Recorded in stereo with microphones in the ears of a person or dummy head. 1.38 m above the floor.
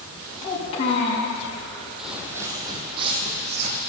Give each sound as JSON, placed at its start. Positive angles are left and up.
{"t": 0.4, "sound": "a child speaking", "side_deg": 35, "distance_m": 6.0}
{"t": 2.0, "sound": "footsteps", "side_deg": 0, "distance_m": 2.0}